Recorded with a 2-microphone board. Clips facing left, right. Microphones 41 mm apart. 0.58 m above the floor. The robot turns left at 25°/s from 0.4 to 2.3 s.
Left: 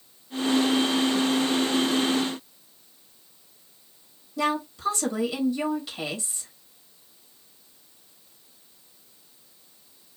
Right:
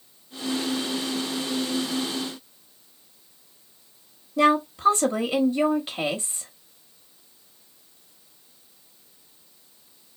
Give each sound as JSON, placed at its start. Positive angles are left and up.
{"t": 4.4, "sound": "a woman speaking", "side_deg": -35, "distance_m": 1.0}